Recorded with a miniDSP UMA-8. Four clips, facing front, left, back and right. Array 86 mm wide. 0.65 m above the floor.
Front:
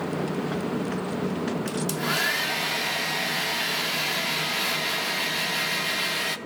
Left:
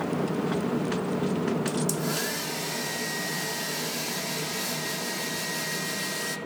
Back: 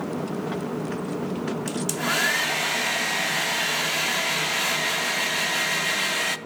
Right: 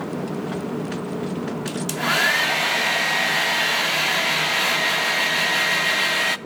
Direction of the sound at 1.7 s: 100° right.